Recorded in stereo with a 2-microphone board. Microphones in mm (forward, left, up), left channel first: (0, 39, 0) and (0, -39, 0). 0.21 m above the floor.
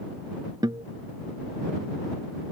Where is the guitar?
65° right (ahead or behind).